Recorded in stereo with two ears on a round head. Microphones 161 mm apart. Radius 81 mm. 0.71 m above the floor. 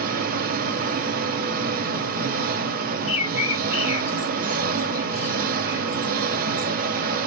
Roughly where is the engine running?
Right.